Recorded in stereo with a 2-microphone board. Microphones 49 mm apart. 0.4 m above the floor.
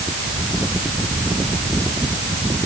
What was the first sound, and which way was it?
Only background noise.